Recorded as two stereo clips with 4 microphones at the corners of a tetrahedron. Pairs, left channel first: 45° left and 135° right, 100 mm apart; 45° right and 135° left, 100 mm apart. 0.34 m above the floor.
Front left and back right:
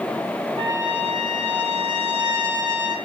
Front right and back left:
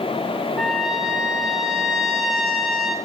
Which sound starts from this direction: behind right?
A trumpet, at 0.6 s.